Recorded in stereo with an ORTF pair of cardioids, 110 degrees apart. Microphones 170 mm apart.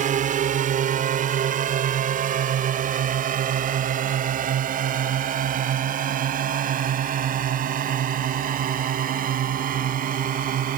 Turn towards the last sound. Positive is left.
turn(degrees=-55)